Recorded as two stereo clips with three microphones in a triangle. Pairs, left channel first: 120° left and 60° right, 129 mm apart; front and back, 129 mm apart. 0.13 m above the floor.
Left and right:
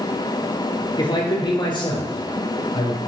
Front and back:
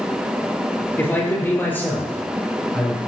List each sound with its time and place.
1.0 s a man speaking: 70° left, 3.5 m; by 3.0 s 75° left, 5.5 m